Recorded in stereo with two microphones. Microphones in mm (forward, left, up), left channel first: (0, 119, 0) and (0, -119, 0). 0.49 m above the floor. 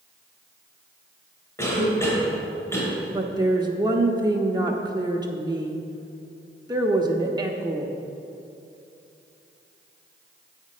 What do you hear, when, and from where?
1.6 s a cough: 10° left (ahead or behind), 2 m
3.1 s a woman speaking: 20° right (ahead or behind), 0.7 m